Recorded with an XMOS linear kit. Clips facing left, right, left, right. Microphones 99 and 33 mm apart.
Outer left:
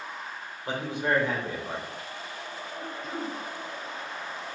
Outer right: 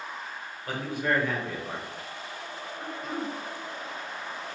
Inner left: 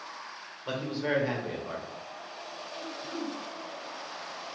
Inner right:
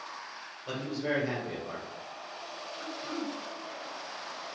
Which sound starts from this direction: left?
A man speaking, at 0.7 s.